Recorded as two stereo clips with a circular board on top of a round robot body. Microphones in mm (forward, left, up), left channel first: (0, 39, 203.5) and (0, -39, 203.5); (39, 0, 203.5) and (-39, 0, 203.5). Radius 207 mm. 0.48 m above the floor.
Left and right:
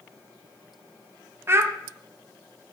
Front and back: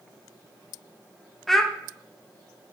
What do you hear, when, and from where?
1.5 s a child speaking: 80° right, 0.6 m